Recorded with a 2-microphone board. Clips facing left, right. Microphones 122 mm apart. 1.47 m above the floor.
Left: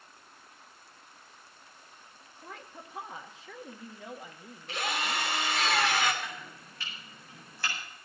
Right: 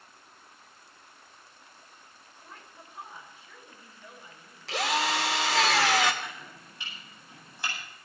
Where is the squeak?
No squeak in this recording.